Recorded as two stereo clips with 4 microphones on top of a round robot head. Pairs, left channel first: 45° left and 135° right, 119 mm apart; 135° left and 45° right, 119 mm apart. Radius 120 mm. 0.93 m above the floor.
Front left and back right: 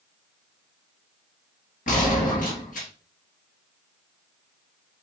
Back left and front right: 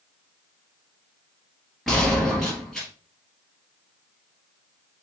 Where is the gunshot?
45° left, 3 m.